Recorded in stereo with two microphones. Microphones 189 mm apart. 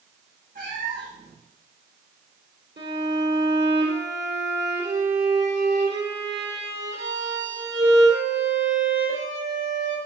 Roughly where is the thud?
I don't hear a thud.